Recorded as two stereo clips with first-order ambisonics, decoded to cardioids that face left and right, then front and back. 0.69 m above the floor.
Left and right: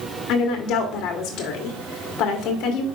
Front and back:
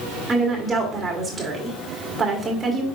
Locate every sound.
0.3 s a woman speaking: 110° left, 1.5 m